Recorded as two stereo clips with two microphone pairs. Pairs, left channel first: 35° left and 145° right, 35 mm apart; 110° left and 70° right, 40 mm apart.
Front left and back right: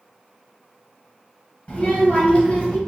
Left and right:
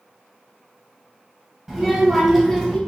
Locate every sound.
1.7 s a child speaking: 10° left, 1.3 m; by 2.8 s 40° left, 1.1 m